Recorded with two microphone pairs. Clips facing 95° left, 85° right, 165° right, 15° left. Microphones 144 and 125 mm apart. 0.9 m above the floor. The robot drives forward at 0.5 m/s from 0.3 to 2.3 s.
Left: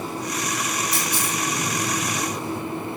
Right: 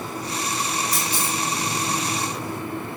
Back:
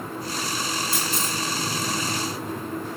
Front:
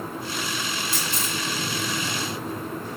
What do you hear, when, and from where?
0.9 s a camera shutter: 125° right, 1.7 m; by 1.4 s 130° right, 1.9 m